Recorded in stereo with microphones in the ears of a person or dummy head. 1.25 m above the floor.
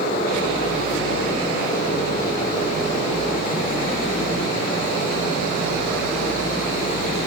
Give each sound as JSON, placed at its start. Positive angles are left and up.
{"t": 0.0, "sound": "a fan", "side_deg": 55, "distance_m": 3.0}